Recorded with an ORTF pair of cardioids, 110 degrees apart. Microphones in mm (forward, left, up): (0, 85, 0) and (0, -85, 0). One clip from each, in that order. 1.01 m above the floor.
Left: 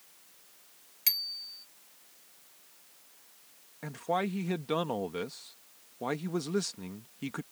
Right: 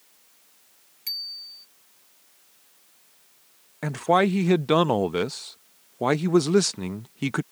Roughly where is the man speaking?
Ahead right.